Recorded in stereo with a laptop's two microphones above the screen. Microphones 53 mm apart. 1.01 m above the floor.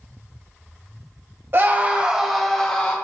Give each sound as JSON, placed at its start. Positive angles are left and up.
{"t": 1.5, "sound": "a scream", "side_deg": -45, "distance_m": 1.0}